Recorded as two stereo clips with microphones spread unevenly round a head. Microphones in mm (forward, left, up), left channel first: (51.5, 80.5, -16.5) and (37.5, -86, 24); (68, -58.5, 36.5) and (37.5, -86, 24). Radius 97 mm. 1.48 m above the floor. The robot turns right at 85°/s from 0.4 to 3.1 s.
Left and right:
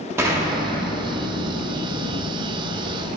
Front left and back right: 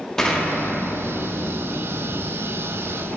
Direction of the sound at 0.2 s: 25° right.